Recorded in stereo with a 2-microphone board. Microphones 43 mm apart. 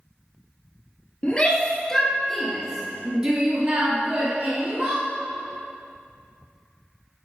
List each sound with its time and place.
1.2 s a shout: 25° left (ahead or behind), 2 m; by 5.0 s 60° right (ahead or behind), 2.5 m